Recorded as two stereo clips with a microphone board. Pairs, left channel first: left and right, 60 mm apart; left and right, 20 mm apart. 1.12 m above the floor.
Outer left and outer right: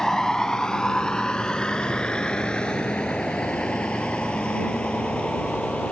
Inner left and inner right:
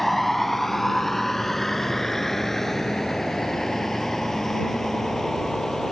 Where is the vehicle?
10° left (ahead or behind); by 5.9 s 15° left (ahead or behind).